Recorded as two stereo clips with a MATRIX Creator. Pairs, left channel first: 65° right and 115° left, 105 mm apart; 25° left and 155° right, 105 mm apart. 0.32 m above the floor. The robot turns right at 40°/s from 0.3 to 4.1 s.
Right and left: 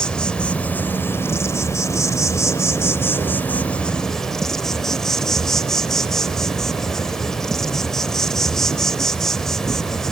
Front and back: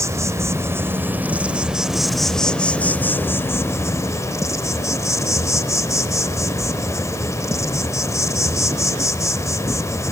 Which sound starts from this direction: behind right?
An insect, at 0.0 s.